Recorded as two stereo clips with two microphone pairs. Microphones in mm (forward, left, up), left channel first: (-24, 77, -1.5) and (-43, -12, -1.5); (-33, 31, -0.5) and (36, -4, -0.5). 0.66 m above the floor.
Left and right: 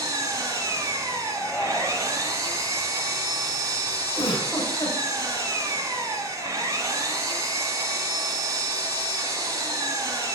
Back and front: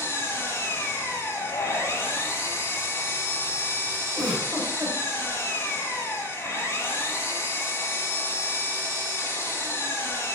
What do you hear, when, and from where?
0.0 s an engine running: 155° right, 1.8 m
1.3 s a shout: 155° left, 0.9 m
4.1 s a giggle: 50° left, 4.5 m